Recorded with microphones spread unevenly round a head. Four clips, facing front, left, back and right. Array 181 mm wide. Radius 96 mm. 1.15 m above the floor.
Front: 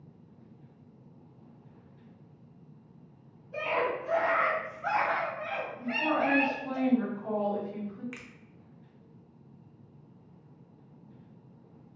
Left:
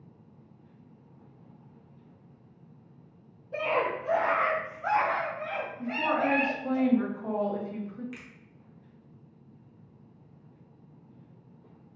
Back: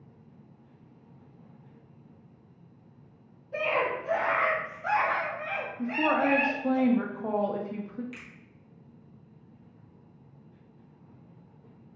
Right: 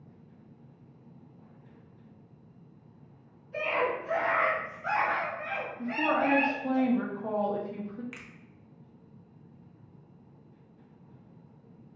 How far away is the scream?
About 1.0 m.